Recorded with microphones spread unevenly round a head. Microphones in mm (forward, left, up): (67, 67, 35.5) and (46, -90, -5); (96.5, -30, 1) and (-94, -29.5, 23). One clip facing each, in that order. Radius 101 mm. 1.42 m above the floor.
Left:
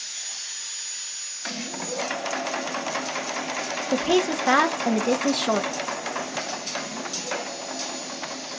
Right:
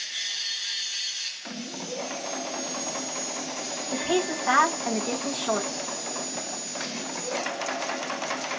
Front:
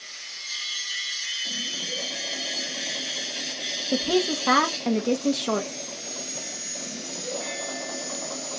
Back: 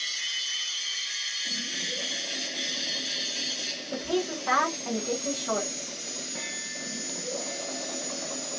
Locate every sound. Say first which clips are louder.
3.9 s a woman speaking: left 5 dB, front 5 dB; 45° left, 1.1 m